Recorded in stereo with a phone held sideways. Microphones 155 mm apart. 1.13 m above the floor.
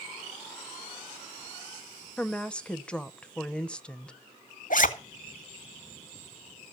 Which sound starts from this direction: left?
A zipper, at 4.7 s.